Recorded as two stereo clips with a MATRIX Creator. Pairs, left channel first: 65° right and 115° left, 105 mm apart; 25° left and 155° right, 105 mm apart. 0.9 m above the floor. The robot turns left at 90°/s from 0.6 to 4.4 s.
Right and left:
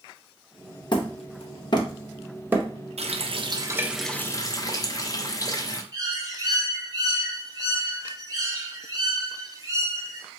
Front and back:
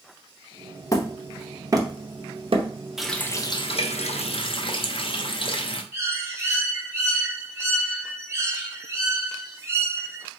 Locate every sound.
0.9 s hammering: 30° right, 0.7 m; by 2.7 s 170° left, 0.7 m
3.0 s a running tap: 115° left, 0.5 m; by 5.8 s 10° right, 0.5 m
5.9 s a bird: 150° left, 0.8 m